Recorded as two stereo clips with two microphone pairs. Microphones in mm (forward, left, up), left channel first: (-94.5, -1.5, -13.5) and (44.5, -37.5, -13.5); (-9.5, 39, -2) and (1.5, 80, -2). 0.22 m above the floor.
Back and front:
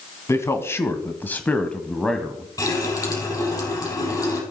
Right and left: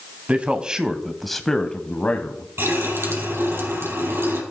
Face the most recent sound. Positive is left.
turn(degrees=100)